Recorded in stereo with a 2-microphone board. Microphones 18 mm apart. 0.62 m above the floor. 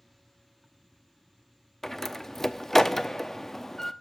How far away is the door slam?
About 0.6 m.